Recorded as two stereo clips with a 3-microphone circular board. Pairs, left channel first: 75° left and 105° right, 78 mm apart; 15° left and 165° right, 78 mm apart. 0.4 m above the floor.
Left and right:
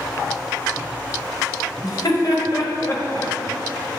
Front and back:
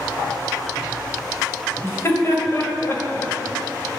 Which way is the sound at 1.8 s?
65° left.